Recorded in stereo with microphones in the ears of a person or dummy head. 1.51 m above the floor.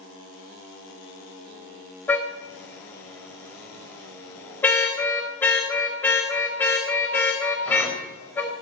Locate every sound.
2.1 s a car horn: 10° left (ahead or behind), 3.5 m